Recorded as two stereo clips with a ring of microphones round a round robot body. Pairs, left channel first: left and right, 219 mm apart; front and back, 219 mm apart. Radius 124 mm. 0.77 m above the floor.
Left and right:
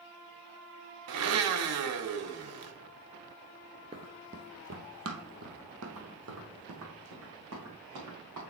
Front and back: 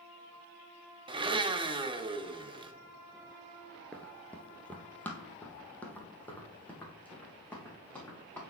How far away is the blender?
About 0.7 m.